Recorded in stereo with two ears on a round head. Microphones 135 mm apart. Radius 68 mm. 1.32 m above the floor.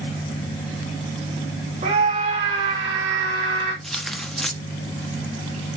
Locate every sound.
1.8 s a scream: 40° right (ahead or behind), 2.5 m
3.8 s tearing paper: centre (ahead or behind), 1.4 m